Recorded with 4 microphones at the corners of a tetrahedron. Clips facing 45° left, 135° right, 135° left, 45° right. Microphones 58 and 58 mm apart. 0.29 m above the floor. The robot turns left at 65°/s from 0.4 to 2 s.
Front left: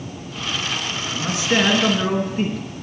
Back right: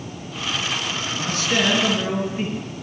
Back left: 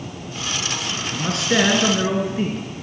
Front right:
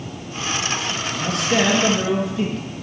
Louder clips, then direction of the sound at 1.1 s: Front left 3 dB, back left 1 dB; 135° left.